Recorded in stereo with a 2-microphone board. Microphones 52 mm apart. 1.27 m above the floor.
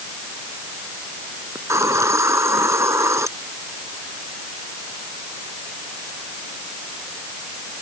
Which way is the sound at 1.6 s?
70° right (ahead or behind).